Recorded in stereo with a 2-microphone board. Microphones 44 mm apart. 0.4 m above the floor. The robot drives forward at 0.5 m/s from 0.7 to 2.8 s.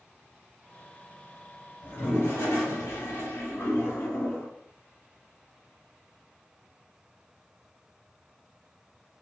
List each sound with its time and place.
1.8 s a toilet flushing: 65° left (ahead or behind), 1.6 m; by 4.5 s 80° left, 1.5 m